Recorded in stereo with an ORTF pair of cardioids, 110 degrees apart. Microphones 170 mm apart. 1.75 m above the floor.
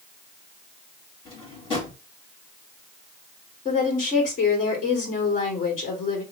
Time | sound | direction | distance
1.2 | a drawer | 35° left | 3 m
3.6 | a woman speaking | 45° left | 3 m